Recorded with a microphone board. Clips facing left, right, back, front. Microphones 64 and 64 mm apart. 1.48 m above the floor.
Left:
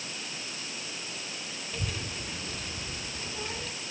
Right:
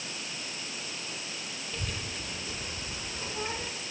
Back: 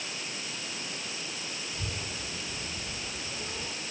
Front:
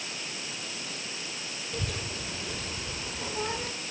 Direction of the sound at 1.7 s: 5° left.